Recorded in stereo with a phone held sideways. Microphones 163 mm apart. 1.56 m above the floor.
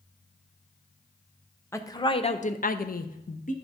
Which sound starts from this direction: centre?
A woman speaking, at 1.7 s.